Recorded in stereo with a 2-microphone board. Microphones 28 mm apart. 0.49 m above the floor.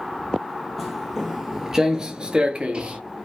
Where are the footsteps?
Centre (ahead or behind), 0.9 m; by 3.0 s 40° right (ahead or behind), 0.7 m.